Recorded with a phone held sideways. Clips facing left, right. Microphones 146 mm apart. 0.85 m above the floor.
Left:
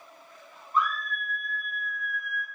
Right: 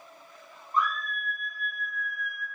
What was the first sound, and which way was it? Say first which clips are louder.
A scream: left 1 dB; 40° right (ahead or behind).